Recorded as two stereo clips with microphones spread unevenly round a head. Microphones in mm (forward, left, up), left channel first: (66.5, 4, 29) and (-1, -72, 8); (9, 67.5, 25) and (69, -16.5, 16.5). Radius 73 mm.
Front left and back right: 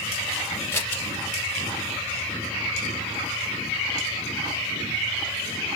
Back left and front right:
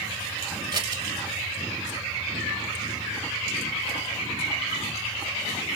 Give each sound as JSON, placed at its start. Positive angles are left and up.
{"t": 0.7, "sound": "scissors", "azimuth_deg": -10, "distance_m": 1.1}